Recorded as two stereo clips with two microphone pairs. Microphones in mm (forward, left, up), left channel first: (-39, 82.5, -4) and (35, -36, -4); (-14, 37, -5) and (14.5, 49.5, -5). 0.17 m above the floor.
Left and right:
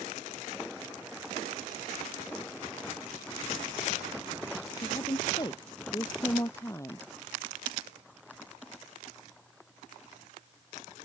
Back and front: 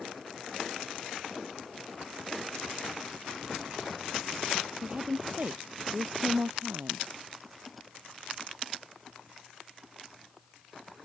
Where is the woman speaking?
65° left; by 7.0 s 50° left.